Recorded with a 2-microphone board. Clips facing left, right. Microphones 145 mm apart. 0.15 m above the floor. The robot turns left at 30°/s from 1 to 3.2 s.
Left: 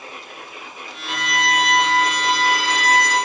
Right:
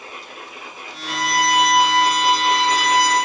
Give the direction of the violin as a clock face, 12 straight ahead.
7 o'clock.